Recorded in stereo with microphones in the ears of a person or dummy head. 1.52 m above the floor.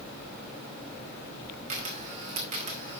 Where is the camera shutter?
40° right (ahead or behind), 2 m.